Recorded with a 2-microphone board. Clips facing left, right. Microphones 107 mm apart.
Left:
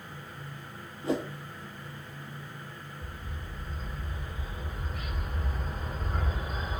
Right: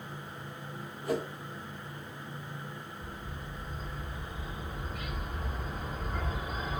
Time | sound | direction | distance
1.0 | a whoosh | 25° left (ahead or behind) | 0.8 m
3.0 | a bird | centre (ahead or behind) | 3 m